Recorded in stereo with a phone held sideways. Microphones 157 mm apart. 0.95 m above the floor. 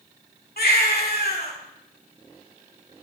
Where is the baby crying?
80° left, 1.9 m.